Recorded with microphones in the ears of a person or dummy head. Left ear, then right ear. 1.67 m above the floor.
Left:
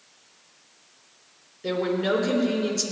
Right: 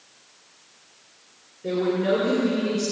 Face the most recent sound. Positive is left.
turn(degrees=80)